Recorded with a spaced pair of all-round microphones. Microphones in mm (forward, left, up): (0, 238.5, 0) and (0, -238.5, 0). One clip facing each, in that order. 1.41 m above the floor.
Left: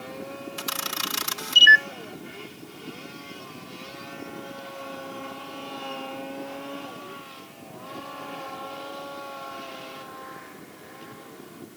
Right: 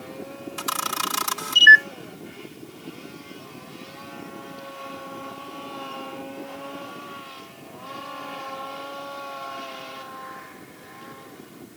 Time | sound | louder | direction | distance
0.6 | a camera shutter | right 2 dB | 60° right (ahead or behind) | ?